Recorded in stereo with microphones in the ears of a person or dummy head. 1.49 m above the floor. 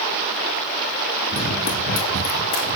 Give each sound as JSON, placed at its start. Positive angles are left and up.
{"t": 1.3, "sound": "running footsteps", "side_deg": 50, "distance_m": 2.5}